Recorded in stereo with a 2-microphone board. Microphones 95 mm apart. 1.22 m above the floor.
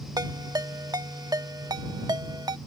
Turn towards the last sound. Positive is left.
turn(degrees=-45)  # may be behind; listen again after turning